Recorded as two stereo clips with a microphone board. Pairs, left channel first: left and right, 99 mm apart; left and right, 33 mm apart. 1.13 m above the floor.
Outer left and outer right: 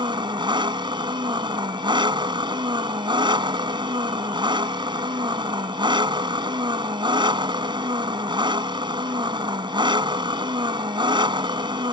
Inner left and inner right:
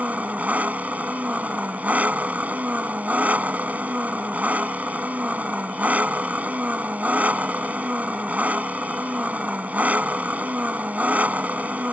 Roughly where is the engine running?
Right.